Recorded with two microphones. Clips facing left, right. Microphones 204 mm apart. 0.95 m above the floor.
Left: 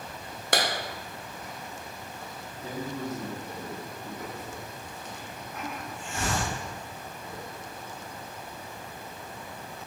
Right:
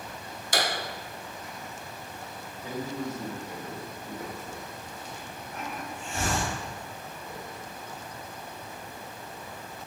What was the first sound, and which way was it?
A clap, 65° left (ahead or behind).